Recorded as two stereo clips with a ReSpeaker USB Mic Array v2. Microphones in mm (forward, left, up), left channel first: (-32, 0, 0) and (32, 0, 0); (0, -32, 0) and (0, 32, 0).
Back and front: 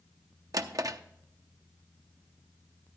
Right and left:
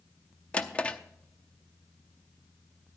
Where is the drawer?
20° right, 0.6 m.